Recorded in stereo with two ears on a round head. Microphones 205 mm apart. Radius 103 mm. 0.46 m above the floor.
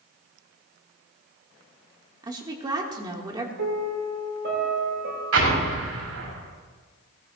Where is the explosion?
65° right (ahead or behind), 5.5 m.